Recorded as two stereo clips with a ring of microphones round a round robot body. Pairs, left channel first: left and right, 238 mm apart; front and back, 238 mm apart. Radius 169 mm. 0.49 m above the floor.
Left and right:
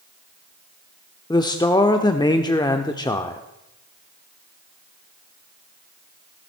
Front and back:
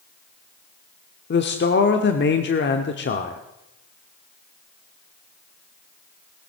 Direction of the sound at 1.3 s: 20° left.